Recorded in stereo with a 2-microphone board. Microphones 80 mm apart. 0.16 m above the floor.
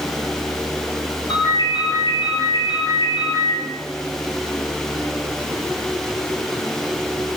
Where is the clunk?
No clunk in this recording.